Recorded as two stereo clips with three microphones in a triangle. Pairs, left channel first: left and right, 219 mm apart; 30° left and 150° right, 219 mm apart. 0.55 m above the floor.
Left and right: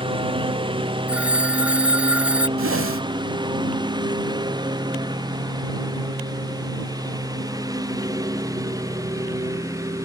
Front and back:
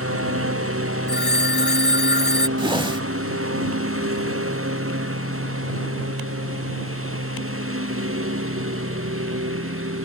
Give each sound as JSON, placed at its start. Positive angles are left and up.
{"t": 0.0, "sound": "a lawn mower", "azimuth_deg": -155}
{"t": 1.1, "sound": "a phone ringing", "azimuth_deg": -5}
{"t": 2.6, "sound": "a whoosh", "azimuth_deg": -80}